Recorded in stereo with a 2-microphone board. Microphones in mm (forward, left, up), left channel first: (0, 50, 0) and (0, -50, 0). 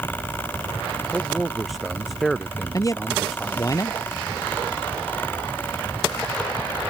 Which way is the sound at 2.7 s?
35° left (ahead or behind).